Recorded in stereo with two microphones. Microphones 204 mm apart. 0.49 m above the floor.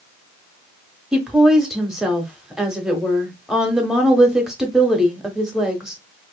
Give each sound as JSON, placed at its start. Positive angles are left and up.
{"t": 1.1, "sound": "a woman speaking", "side_deg": -5, "distance_m": 0.8}